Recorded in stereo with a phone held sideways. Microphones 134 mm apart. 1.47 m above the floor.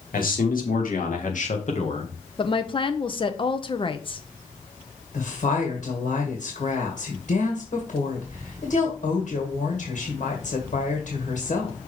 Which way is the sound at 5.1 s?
70° left (ahead or behind).